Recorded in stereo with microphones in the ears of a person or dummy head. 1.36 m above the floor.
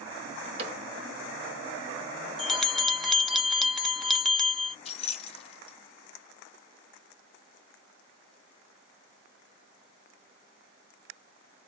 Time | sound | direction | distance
0.6 | a cupboard door | 40° right (ahead or behind) | 1.6 m
2.4 | a bell | 5° left (ahead or behind) | 0.6 m
4.8 | keys jangling | 40° left (ahead or behind) | 1.0 m